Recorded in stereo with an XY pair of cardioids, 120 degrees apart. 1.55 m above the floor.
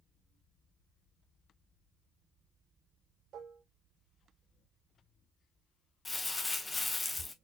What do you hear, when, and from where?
3.3 s dishes clattering: 65° right, 2 m
6.0 s crumpling: 15° left, 0.7 m